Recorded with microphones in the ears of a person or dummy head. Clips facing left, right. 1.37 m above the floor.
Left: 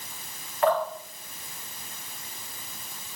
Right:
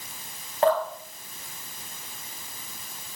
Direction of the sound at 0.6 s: 30° right (ahead or behind).